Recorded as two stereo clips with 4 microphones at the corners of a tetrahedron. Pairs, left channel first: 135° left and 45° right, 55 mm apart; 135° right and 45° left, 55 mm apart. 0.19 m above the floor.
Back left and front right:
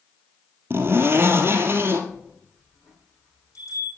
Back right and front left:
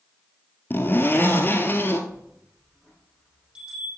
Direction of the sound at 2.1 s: 115° left.